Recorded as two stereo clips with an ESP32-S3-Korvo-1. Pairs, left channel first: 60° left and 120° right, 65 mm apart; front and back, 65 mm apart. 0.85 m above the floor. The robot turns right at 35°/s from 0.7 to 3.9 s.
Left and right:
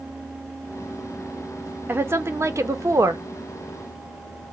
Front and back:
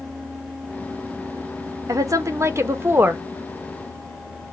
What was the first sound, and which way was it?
A woman speaking, 170° right.